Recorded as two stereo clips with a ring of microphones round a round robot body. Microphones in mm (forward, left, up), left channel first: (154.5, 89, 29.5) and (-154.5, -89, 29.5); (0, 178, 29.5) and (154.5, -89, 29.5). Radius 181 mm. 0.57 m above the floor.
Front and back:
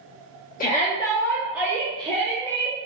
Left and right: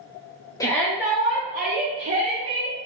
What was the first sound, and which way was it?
A shout, 55° left.